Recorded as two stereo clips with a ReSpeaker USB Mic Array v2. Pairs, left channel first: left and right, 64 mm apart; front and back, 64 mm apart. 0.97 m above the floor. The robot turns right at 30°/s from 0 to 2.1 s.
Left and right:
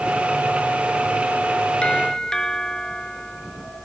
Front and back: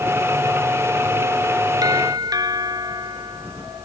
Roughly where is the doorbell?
Behind.